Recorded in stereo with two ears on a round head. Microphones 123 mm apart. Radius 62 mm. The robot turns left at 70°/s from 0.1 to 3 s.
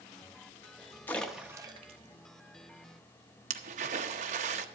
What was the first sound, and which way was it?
A splash, 15° left (ahead or behind).